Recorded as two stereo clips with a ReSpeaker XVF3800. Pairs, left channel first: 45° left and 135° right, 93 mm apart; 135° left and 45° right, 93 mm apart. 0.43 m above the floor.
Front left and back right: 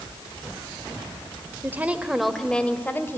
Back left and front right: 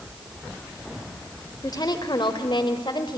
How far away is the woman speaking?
About 1.4 m.